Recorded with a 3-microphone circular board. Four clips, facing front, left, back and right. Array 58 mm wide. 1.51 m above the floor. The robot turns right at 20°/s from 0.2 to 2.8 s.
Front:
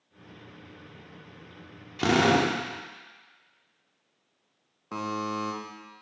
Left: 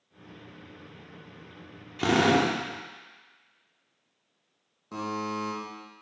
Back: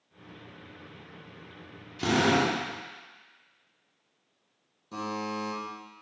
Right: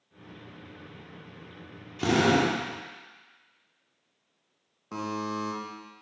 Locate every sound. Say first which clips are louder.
2.0 s a drill: left 1 dB, front 2 dB; 35° left, 1.4 m; by 2.5 s 45° left, 1.4 m
4.9 s a buzzer: even, front 2 dB; 10° right, 1.6 m